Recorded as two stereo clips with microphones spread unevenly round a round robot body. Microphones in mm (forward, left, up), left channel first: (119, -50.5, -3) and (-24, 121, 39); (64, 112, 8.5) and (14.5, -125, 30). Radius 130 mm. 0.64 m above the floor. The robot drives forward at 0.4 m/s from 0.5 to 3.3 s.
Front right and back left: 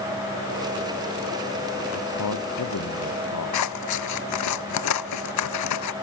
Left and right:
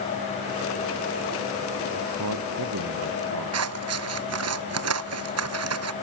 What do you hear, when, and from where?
1.9 s a man speaking: 75° right
3.5 s scissors: 70° right